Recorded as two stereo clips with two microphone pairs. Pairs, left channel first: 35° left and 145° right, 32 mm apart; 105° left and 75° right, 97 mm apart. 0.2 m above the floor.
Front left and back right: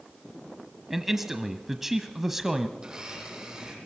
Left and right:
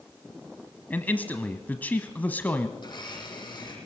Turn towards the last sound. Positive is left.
turn(degrees=150)